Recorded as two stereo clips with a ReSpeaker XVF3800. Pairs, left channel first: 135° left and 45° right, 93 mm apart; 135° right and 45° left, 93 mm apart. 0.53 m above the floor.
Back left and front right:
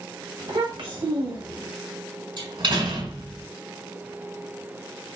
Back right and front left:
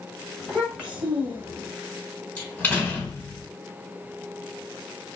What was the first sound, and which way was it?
A child speaking, 45° right.